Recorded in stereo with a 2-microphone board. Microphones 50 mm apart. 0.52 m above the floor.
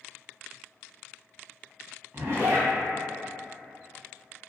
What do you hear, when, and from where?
2.1 s a zipper: 55° right (ahead or behind), 0.7 m